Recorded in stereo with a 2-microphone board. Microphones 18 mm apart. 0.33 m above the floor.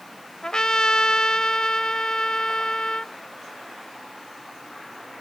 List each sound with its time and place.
0.4 s a trumpet: 45° left (ahead or behind)